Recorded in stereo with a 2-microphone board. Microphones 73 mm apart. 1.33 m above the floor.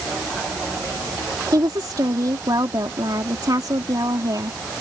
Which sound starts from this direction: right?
A woman speaking, at 1.5 s.